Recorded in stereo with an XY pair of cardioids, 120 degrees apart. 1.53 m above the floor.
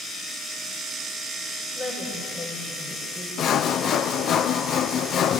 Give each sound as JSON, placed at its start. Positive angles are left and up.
{"t": 1.8, "sound": "a woman speaking", "azimuth_deg": 40, "distance_m": 9.5}
{"t": 3.4, "sound": "sawing", "azimuth_deg": 55, "distance_m": 0.6}